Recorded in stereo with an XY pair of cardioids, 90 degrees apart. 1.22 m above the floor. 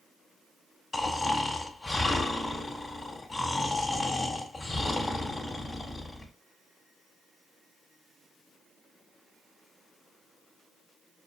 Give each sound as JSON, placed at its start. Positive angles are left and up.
{"t": 0.9, "sound": "snoring", "azimuth_deg": 40, "distance_m": 1.9}